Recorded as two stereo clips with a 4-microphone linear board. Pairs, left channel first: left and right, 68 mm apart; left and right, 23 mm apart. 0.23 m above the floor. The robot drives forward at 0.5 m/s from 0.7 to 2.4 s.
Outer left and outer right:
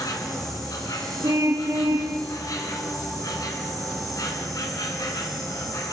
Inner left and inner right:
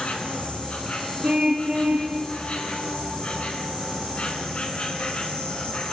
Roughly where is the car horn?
Right.